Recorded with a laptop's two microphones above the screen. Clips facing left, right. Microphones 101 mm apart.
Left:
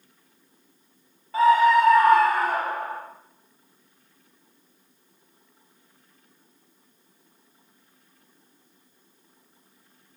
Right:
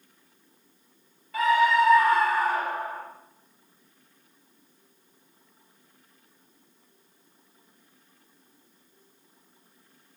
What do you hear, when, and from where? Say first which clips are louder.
1.3 s a scream: left 4 dB; 30° left (ahead or behind), 1.3 m; by 3.0 s 65° left (ahead or behind), 2.5 m